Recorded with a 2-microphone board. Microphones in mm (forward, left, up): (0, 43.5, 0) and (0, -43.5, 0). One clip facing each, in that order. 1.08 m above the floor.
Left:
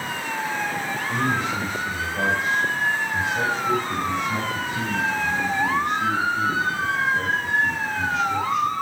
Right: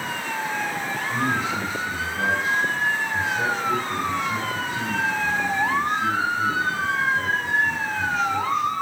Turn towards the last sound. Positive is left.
turn(degrees=75)  # may be behind; listen again after turning